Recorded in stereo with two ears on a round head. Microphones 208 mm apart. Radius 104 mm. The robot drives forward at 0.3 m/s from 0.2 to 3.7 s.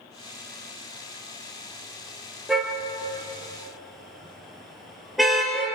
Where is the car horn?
Centre (ahead or behind), 3.5 m.